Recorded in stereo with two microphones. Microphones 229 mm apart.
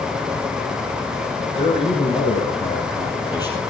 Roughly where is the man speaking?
Left.